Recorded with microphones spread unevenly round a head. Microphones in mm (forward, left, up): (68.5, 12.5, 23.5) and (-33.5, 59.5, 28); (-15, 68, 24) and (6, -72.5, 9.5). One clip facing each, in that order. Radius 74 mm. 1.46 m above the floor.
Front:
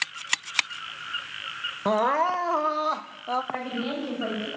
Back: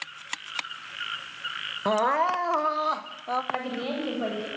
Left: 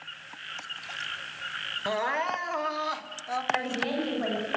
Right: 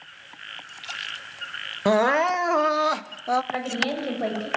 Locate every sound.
1.9 s crying: 110° right, 0.7 m
3.5 s a woman speaking: 130° right, 8.5 m